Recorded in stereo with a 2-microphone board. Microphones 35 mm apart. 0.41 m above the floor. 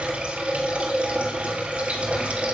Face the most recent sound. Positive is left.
turn(degrees=-40)  # may be behind; listen again after turning